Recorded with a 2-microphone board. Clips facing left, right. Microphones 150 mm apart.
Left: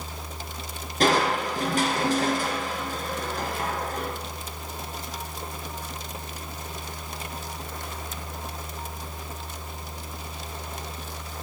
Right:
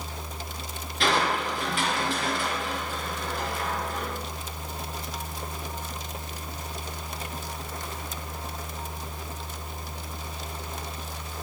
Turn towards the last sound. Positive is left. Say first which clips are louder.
# left 3 dB
turn(degrees=45)  # may be behind; listen again after turning